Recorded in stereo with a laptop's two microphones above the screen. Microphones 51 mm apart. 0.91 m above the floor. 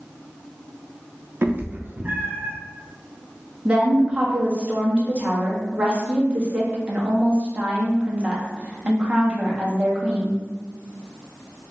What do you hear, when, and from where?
1.4 s a cat meowing: 45° right (ahead or behind), 0.6 m; by 2.5 s 35° right (ahead or behind), 1.4 m
3.6 s a woman speaking: 20° right (ahead or behind), 1.2 m